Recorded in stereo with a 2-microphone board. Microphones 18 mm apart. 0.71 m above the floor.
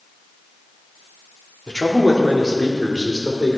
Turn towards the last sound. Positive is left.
turn(degrees=45)  # may be behind; listen again after turning